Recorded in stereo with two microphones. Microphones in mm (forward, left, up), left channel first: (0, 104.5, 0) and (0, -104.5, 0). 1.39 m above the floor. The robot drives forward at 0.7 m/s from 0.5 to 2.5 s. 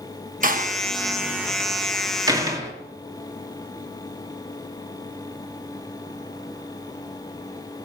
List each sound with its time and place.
0.4 s a door slam: 40° right (ahead or behind), 0.9 m; by 2.7 s 15° right (ahead or behind), 2 m